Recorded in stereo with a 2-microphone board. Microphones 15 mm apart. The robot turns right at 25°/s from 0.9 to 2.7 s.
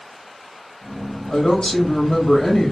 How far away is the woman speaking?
About 2.5 m.